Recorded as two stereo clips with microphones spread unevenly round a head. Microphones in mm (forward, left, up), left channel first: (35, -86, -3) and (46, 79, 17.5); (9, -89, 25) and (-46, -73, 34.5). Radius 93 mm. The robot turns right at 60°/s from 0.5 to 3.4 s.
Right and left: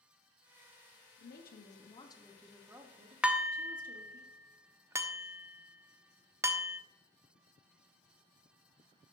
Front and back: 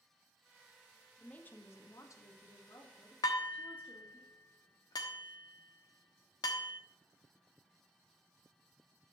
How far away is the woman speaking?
About 1.6 m.